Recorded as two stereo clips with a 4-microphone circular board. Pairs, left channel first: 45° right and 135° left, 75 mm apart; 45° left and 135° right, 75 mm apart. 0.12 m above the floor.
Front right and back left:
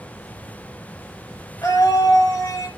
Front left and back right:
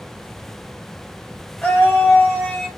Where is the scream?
15° right, 2.5 m; by 2.7 s 35° right, 2.5 m.